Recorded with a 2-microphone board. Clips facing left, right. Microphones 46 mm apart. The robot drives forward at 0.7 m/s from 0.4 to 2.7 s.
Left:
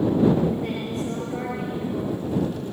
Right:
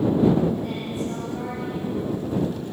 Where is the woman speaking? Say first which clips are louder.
Left 1 dB; 85° left, 7.5 m; by 2.6 s 75° left (ahead or behind), 8 m.